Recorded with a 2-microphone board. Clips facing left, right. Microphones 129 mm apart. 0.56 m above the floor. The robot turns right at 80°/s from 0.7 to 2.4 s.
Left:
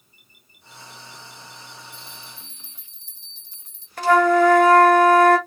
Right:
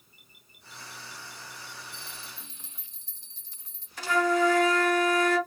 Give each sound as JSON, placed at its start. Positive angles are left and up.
{"t": 1.9, "sound": "a bell", "azimuth_deg": 40, "distance_m": 2.5}
{"t": 4.0, "sound": "a flute", "side_deg": 60, "distance_m": 0.9}